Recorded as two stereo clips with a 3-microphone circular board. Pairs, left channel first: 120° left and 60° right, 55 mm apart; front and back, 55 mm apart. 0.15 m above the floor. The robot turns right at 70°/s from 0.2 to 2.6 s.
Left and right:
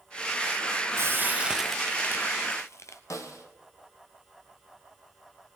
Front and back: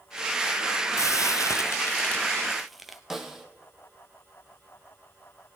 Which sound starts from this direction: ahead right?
Frying, at 1.0 s.